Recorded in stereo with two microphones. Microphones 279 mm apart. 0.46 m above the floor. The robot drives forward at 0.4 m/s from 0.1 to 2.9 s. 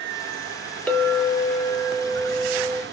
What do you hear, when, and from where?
0.9 s a clink: 5° left (ahead or behind), 0.9 m